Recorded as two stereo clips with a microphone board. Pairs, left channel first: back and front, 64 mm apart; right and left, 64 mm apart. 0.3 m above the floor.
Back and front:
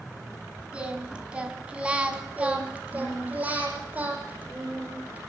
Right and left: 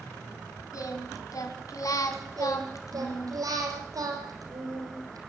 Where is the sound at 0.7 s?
70° right, 2.5 m.